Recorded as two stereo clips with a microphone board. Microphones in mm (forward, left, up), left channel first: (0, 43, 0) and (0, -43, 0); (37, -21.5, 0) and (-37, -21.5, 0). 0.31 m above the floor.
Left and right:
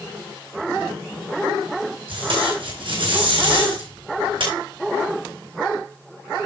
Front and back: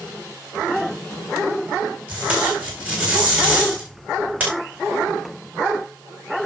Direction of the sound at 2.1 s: 110° right.